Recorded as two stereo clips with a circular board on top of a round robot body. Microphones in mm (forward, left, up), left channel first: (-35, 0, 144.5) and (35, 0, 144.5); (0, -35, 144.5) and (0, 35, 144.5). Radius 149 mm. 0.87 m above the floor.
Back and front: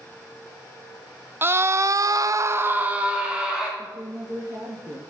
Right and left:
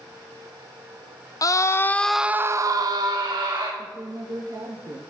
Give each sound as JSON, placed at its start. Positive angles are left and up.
{"t": 1.4, "sound": "a scream", "azimuth_deg": -55, "distance_m": 0.7}
{"t": 3.8, "sound": "a woman speaking", "azimuth_deg": 45, "distance_m": 1.2}